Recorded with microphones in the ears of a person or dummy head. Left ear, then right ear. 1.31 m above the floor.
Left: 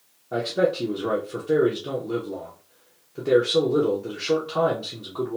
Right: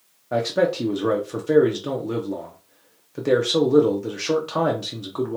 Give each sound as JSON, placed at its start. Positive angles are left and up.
{"t": 0.3, "sound": "a man speaking", "side_deg": -75, "distance_m": 0.7}